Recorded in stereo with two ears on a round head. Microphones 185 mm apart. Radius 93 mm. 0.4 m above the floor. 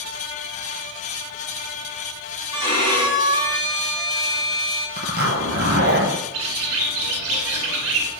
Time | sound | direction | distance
2.5 | a violin | 25° right (ahead or behind) | 3 m
5.0 | a zipper | 55° right (ahead or behind) | 1.8 m
6.3 | a bird | 75° right (ahead or behind) | 1.5 m